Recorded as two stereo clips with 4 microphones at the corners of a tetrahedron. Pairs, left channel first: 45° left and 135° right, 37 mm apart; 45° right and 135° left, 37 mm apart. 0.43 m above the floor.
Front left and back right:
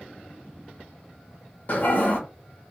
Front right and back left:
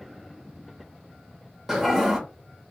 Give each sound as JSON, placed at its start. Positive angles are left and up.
{"t": 1.7, "sound": "a toilet flushing", "azimuth_deg": 60, "distance_m": 0.9}